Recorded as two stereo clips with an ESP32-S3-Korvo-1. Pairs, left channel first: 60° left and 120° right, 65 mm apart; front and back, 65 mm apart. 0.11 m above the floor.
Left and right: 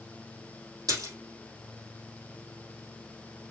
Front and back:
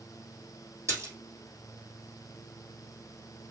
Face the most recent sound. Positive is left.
turn(degrees=-135)